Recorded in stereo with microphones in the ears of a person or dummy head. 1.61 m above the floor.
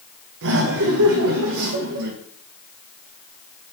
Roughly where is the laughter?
Right.